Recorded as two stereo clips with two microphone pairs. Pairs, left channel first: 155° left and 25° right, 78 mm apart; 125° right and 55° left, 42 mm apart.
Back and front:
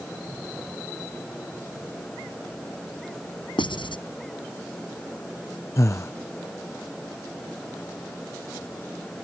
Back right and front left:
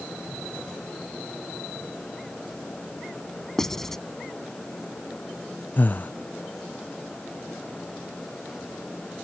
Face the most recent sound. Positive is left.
turn(degrees=-160)